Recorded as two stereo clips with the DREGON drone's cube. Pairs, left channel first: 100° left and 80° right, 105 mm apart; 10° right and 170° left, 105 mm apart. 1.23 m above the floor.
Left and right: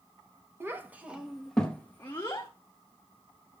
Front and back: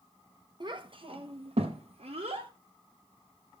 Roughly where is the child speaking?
Behind right.